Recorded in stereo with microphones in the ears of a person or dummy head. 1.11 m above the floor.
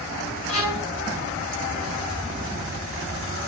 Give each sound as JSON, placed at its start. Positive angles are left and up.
{"t": 0.5, "sound": "a violin", "side_deg": 75, "distance_m": 4.5}